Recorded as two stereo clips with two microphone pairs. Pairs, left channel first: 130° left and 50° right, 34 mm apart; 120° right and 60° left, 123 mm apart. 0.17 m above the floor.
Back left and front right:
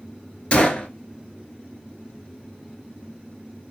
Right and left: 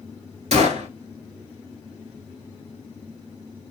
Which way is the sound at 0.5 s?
80° left.